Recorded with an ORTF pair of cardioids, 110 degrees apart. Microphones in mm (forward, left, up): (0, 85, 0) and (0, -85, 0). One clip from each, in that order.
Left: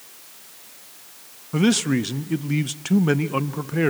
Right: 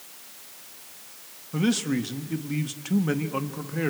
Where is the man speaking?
30° left, 0.7 m.